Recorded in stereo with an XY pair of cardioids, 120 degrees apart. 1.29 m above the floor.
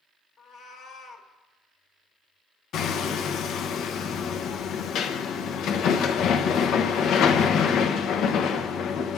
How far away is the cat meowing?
About 1.4 m.